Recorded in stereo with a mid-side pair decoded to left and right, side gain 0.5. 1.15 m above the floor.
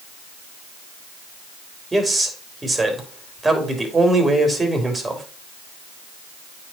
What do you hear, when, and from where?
1.9 s a man speaking: 15° right, 2.5 m